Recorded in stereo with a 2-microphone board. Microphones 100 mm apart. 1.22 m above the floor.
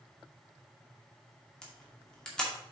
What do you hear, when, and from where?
1.6 s a camera shutter: 10° left (ahead or behind), 2 m